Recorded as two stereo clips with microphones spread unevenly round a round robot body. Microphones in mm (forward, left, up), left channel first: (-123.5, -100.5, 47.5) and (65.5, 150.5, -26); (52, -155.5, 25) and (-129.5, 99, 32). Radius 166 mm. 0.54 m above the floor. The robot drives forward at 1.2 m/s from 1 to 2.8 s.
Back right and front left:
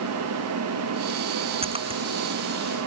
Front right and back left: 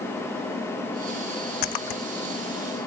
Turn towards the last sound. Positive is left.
turn(degrees=-25)